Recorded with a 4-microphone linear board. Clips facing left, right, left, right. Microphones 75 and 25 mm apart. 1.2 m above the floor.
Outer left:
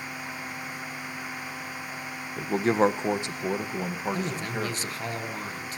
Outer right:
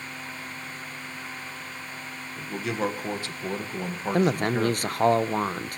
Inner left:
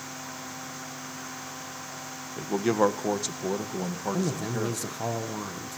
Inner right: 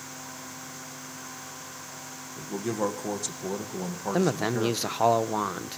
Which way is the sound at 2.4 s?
45° left (ahead or behind).